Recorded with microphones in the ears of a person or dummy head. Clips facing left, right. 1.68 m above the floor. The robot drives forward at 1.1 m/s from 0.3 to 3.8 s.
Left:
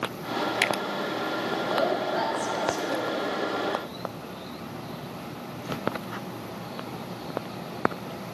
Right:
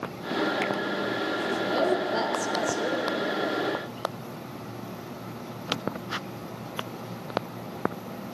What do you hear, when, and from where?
1.7 s a woman speaking: 45° right (ahead or behind), 1.3 m; by 3.0 s 55° right (ahead or behind), 1.1 m